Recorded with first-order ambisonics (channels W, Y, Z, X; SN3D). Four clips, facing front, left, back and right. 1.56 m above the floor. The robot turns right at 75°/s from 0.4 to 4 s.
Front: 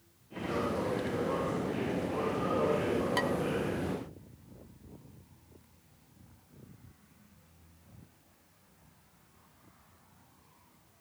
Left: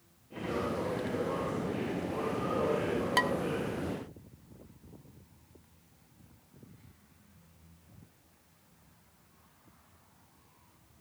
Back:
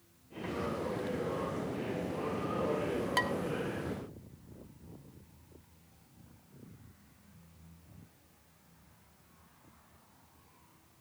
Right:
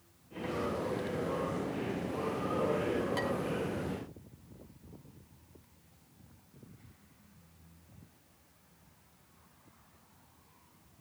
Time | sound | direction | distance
3.2 | dishes clattering | 100° left | 0.9 m